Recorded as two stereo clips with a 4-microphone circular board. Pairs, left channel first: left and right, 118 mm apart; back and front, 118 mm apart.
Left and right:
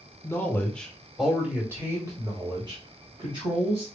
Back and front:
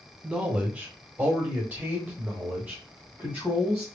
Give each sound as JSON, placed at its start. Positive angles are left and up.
{"t": 0.2, "sound": "a man speaking", "azimuth_deg": 65, "distance_m": 1.2}